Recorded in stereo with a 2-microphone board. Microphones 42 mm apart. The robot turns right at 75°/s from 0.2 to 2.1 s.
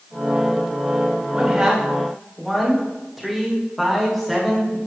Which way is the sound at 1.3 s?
20° right (ahead or behind).